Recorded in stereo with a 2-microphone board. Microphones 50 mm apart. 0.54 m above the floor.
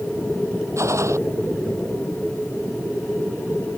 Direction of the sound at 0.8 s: 75° right (ahead or behind).